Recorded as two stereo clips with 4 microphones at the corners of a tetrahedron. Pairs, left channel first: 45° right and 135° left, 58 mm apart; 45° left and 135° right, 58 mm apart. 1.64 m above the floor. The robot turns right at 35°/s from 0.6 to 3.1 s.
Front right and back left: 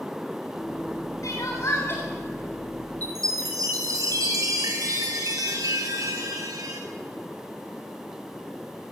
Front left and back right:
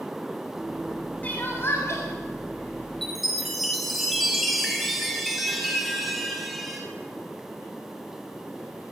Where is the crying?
20° right, 7.5 m; by 2.0 s 10° left, 7.5 m.